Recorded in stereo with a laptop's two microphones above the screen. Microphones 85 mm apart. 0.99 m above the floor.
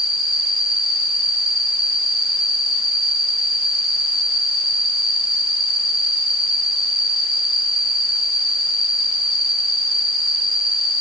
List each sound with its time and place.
0.0 s an insect: 55° left (ahead or behind), 2.5 m